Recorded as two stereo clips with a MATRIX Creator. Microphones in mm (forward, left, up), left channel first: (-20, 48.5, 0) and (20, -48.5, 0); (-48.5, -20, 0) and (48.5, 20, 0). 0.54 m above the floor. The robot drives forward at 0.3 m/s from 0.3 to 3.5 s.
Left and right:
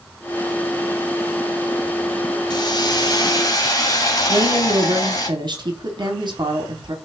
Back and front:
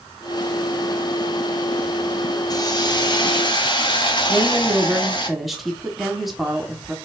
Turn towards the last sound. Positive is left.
turn(degrees=-65)